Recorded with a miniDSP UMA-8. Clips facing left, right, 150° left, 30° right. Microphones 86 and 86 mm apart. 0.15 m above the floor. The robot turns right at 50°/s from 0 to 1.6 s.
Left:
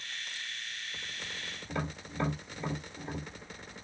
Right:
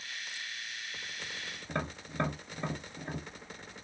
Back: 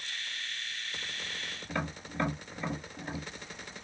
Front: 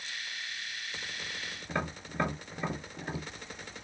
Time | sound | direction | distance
1.7 | tapping | 95° right | 2 m